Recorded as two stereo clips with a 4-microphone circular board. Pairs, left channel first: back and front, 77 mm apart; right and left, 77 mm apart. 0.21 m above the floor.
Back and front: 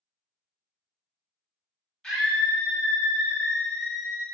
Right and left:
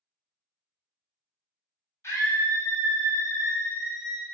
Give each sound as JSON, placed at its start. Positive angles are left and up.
{"t": 2.0, "sound": "a scream", "azimuth_deg": -95, "distance_m": 1.4}